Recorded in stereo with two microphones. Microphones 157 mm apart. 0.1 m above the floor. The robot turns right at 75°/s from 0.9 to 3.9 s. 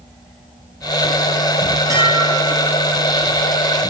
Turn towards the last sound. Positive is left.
turn(degrees=130)